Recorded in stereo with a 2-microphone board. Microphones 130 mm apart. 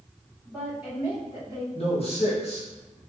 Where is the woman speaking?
5° right (ahead or behind), 1.5 m; by 1.6 s 25° right (ahead or behind), 2 m.